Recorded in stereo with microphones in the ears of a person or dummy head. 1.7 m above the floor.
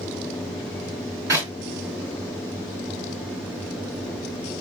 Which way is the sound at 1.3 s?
15° right (ahead or behind).